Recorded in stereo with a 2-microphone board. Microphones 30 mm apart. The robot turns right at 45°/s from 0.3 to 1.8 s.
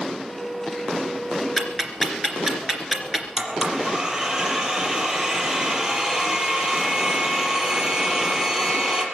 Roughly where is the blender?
Right.